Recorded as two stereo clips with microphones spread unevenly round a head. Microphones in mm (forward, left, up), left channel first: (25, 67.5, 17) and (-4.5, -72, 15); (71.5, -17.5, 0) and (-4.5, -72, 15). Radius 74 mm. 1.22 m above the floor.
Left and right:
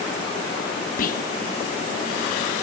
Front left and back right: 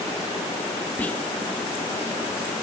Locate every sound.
1.0 s whispering: 115° left